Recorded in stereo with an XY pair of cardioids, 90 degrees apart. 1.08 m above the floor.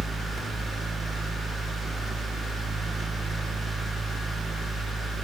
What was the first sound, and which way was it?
A fan, 70° right.